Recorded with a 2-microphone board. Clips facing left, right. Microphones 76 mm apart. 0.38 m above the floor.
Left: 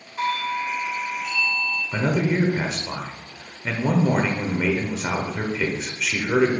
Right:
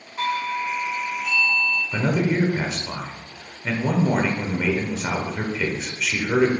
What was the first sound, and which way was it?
A doorbell, centre (ahead or behind).